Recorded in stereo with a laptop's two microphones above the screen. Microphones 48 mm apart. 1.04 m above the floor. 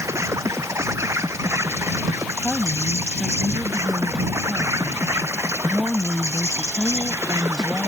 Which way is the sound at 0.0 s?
85° right.